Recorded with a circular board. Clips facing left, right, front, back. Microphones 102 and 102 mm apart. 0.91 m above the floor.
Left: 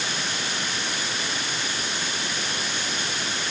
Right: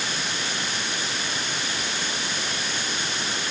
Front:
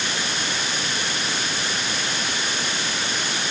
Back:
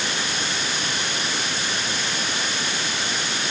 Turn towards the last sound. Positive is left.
No sound to turn to.